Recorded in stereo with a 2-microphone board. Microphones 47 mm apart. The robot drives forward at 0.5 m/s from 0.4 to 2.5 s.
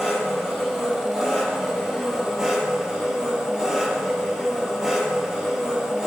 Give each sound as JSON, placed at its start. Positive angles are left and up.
{"t": 0.0, "sound": "an engine running", "side_deg": -10, "distance_m": 4.0}